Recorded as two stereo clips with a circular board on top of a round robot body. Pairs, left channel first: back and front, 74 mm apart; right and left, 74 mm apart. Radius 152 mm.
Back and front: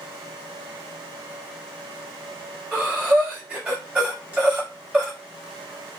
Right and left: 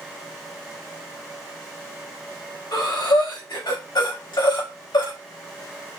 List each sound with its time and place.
2.7 s breathing: 75° right, 3.5 m